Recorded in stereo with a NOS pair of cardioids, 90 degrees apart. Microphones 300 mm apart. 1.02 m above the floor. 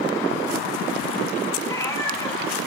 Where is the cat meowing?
10° left, 5 m.